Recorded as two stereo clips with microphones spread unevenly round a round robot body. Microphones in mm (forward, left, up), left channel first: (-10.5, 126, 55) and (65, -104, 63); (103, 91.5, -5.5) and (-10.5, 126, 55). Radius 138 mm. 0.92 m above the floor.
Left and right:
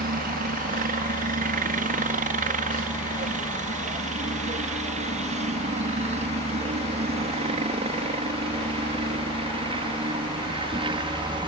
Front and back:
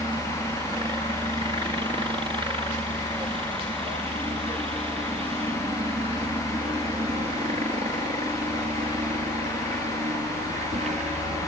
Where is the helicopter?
120° right; by 11.5 s 140° right.